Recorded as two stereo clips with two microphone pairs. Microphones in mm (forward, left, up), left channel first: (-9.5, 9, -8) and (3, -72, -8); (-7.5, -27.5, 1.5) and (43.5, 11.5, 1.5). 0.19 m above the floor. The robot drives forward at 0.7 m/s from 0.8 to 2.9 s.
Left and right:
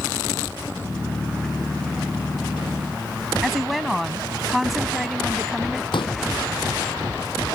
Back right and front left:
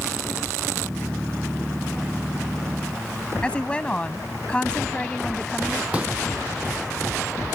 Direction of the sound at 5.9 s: 105° left.